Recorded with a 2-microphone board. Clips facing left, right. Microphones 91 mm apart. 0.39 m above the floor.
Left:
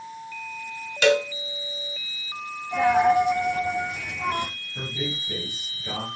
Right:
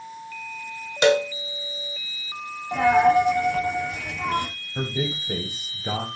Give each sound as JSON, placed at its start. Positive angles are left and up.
{"t": 1.0, "sound": "a cowbell", "side_deg": -25, "distance_m": 1.9}
{"t": 2.7, "sound": "a dropped coin", "side_deg": -60, "distance_m": 5.5}
{"t": 4.8, "sound": "a man speaking", "side_deg": -55, "distance_m": 2.0}